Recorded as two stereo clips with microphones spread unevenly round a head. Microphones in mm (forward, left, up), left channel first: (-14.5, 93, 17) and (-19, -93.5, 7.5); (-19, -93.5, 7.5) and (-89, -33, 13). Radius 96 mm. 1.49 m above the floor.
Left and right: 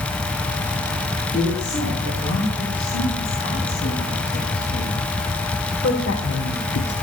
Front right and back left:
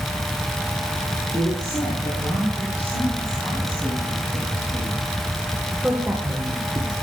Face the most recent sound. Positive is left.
turn(degrees=75)